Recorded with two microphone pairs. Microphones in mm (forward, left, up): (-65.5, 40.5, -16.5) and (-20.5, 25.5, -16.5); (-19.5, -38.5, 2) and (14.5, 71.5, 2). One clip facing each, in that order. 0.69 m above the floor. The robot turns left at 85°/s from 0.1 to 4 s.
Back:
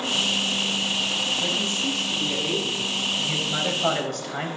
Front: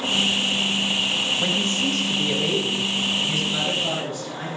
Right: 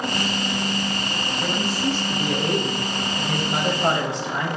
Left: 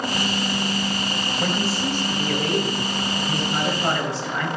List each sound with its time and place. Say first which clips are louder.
1.4 s a man speaking: front 3 dB, even; 45° left, 4 m; by 4.6 s 175° right, 4 m